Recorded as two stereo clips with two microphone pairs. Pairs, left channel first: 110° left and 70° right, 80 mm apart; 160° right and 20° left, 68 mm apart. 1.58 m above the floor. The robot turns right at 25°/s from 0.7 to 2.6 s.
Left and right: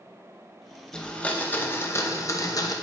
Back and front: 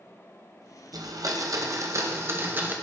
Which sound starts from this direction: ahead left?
A blender, at 0.9 s.